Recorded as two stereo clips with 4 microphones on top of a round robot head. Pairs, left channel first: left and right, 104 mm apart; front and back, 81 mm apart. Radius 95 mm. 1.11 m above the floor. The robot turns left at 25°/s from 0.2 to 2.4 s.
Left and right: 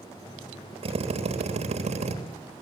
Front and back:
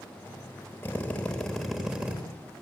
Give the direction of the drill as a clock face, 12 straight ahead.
2 o'clock.